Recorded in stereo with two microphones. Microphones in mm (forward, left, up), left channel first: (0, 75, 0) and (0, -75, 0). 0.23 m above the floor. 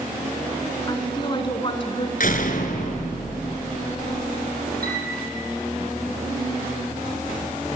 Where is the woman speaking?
30° left (ahead or behind), 3 m; by 2.1 s 40° left (ahead or behind), 2.5 m.